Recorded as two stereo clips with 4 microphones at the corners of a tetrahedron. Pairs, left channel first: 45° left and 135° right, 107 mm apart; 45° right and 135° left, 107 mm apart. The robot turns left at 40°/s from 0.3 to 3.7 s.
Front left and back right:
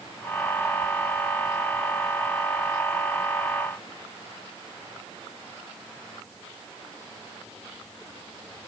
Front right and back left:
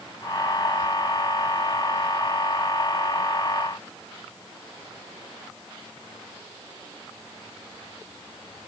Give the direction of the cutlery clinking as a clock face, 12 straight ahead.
I don't hear cutlery clinking.